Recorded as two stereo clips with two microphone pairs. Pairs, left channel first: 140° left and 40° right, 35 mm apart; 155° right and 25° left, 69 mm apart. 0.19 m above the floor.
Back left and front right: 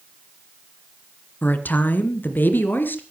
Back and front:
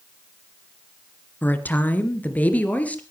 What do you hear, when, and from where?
1.4 s a woman speaking: 150° left, 2 m; by 3.0 s 140° left, 3 m